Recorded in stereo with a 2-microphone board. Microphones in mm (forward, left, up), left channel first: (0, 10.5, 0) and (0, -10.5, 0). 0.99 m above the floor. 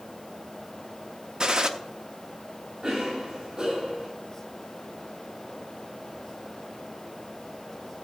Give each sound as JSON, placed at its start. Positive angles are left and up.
{"t": 1.4, "sound": "a gunshot", "side_deg": -40, "distance_m": 0.6}
{"t": 2.8, "sound": "a cough", "side_deg": -70, "distance_m": 6.0}